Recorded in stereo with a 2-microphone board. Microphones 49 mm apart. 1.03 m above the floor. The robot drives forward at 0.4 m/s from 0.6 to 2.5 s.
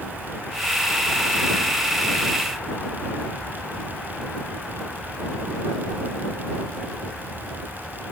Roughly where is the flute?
No flute in this recording.